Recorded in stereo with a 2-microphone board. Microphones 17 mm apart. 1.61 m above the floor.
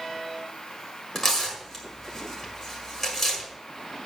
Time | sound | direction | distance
1.1 | tearing paper | 25° left (ahead or behind) | 5.5 m